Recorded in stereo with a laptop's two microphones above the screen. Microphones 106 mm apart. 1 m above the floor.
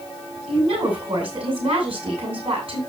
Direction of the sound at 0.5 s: 65° right (ahead or behind).